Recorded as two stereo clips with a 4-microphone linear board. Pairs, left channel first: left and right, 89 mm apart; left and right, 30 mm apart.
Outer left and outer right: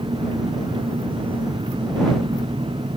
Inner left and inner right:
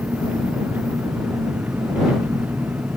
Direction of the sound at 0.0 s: 70° right (ahead or behind).